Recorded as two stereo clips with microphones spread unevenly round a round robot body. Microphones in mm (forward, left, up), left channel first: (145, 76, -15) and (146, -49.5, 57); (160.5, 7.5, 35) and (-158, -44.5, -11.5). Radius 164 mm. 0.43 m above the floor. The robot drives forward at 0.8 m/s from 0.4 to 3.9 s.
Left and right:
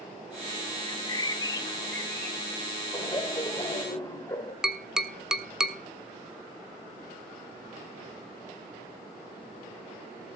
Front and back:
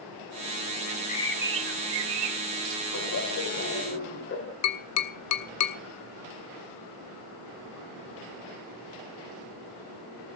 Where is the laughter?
45° left, 2.5 m; by 4.5 s 65° left, 2.5 m.